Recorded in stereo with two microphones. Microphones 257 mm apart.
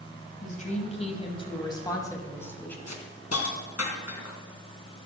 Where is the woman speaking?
30° left (ahead or behind), 2.5 m; by 2.8 s 5° left (ahead or behind), 3 m.